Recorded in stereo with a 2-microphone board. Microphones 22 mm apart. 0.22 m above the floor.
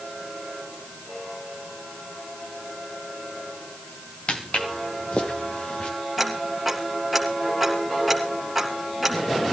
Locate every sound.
4.3 s footsteps: 75° left (ahead or behind), 3.5 m; by 5.9 s 65° left (ahead or behind), 4 m
6.2 s ticking: centre (ahead or behind), 3 m